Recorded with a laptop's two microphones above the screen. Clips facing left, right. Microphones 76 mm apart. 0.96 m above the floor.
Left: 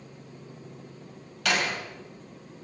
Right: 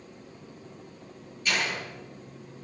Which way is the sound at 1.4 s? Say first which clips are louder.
Left 2 dB; 85° left.